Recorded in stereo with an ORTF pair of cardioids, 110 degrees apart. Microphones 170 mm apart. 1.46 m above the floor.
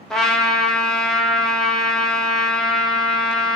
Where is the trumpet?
5° left, 0.5 m.